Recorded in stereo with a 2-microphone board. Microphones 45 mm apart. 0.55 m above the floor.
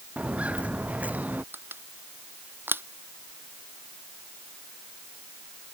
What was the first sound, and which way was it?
Footsteps, 25° right (ahead or behind).